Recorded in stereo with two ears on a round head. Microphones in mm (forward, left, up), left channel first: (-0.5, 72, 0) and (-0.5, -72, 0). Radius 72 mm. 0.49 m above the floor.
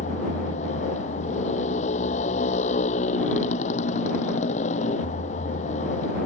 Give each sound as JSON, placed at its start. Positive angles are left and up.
{"t": 0.0, "sound": "a motorcycle", "side_deg": 45}